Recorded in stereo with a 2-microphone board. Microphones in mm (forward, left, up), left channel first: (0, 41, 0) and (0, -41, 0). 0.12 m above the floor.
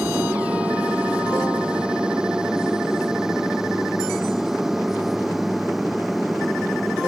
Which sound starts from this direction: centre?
An aircraft, at 0.0 s.